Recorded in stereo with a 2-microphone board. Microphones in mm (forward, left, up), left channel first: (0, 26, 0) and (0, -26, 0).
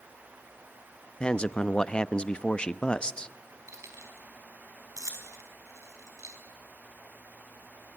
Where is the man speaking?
20° left (ahead or behind), 0.5 m.